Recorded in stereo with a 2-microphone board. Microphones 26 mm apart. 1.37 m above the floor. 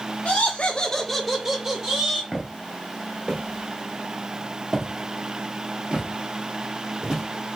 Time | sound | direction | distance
0.2 | laughter | 65° left (ahead or behind) | 0.6 m
2.3 | footsteps | centre (ahead or behind) | 1.5 m